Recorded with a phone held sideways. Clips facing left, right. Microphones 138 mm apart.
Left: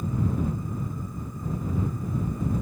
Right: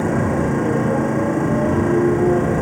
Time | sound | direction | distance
0.0 | a motorcycle | 85° right | ?